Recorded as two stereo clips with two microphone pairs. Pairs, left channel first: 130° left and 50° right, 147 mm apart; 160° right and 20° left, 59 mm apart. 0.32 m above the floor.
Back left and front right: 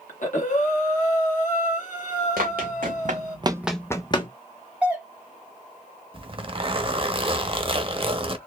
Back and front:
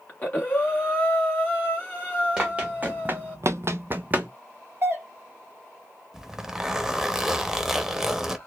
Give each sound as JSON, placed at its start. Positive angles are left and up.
{"t": 0.1, "sound": "breathing", "azimuth_deg": 140, "distance_m": 1.6}
{"t": 2.4, "sound": "running footsteps", "azimuth_deg": -50, "distance_m": 1.3}
{"t": 4.8, "sound": "a doorbell", "azimuth_deg": 25, "distance_m": 1.6}
{"t": 6.1, "sound": "a zipper", "azimuth_deg": -50, "distance_m": 0.6}